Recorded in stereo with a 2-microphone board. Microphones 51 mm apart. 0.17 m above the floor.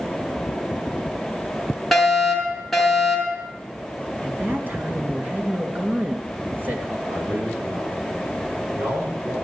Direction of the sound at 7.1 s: 50° right (ahead or behind).